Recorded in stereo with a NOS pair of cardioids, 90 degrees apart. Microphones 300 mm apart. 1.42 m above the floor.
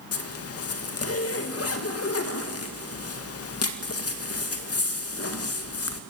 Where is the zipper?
50° left, 1.9 m.